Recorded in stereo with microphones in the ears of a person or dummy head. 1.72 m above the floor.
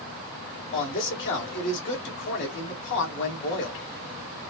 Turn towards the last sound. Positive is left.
turn(degrees=60)  # may be behind; listen again after turning